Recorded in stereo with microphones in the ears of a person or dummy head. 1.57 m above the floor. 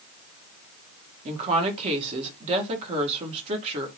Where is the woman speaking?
40° right (ahead or behind), 1.2 m.